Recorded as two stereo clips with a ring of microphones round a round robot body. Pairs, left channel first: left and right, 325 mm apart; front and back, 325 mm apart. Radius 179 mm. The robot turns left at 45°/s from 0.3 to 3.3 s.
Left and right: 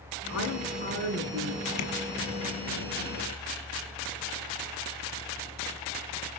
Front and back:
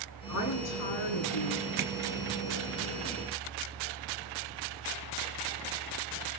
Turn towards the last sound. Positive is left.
turn(degrees=55)